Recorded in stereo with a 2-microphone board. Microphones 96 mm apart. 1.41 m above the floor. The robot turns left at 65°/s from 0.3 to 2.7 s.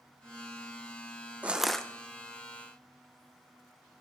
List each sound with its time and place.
1.4 s crushing: 15° right (ahead or behind), 0.7 m; by 1.9 s 10° left (ahead or behind), 0.7 m